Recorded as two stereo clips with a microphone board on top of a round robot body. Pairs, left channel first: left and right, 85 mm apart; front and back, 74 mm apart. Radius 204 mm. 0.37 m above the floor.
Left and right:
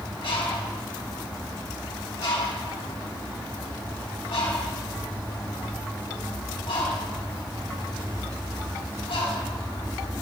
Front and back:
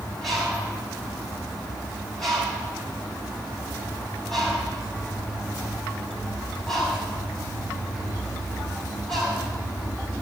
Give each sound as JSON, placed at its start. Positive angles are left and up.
{"t": 0.2, "sound": "a bird", "azimuth_deg": 85, "distance_m": 5.0}